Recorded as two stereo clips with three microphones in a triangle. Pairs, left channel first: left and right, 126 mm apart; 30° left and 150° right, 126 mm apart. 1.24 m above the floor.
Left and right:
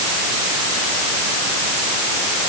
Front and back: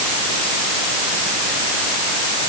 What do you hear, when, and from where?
Only background noise.